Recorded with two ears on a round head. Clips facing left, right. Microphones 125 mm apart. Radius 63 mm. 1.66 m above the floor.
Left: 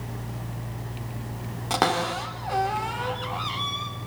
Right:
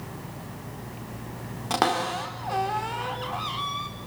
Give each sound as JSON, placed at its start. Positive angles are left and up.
{"t": 1.7, "sound": "a cupboard door", "side_deg": 0, "distance_m": 4.0}